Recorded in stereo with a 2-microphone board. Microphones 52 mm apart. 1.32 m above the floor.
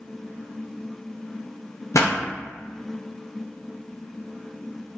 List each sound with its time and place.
1.9 s a pop: 85° left, 0.8 m